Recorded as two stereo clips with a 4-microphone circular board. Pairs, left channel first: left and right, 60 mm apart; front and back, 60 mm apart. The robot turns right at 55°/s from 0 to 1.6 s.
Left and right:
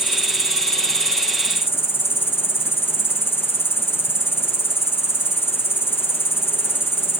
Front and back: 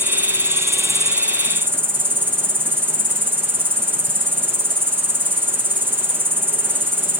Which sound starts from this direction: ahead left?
An insect, at 0.0 s.